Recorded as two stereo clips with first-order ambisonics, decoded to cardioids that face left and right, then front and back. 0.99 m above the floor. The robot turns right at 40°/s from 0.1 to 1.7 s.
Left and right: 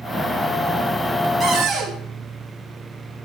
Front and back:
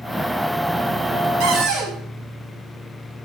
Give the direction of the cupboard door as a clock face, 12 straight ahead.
6 o'clock.